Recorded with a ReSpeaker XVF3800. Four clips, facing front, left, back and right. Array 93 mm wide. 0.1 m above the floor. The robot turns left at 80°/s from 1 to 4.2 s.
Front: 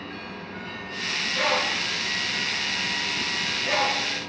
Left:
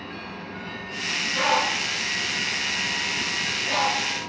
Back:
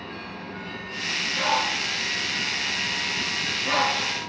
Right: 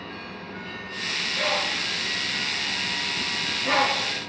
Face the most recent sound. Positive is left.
turn(degrees=-160)